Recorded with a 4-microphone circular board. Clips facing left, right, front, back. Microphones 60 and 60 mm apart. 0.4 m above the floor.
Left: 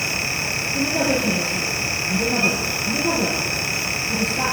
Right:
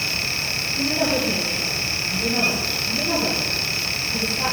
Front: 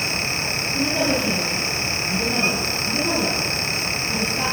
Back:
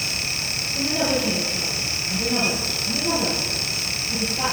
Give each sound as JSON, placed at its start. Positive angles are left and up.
{"t": 0.7, "sound": "a woman speaking", "azimuth_deg": 55, "distance_m": 6.0}